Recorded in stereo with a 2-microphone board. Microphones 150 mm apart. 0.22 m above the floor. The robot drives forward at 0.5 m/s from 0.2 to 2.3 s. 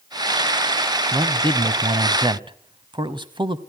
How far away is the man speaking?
About 1.1 m.